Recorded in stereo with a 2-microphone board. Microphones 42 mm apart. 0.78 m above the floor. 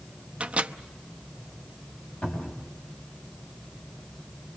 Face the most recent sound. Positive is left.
turn(degrees=45)  # may be behind; listen again after turning